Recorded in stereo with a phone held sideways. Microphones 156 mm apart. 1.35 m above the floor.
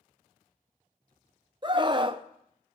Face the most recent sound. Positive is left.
turn(degrees=-30)  # may be behind; listen again after turning